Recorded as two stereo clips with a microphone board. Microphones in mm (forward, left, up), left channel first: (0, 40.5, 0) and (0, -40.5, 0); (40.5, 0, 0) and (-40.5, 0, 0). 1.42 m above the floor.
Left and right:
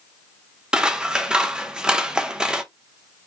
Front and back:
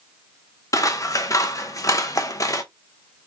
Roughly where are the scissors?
Ahead.